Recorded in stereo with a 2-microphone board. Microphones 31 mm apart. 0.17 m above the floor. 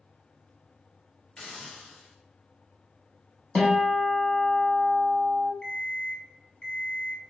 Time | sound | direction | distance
1.4 | a hiss | 30° left (ahead or behind) | 1.9 m
3.5 | a guitar | 25° left (ahead or behind) | 1.0 m
5.6 | an alarm clock | 25° left (ahead or behind) | 0.8 m